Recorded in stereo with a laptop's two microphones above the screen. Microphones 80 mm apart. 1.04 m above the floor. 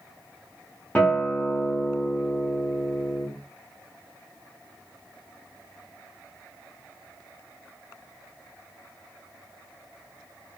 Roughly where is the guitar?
Centre.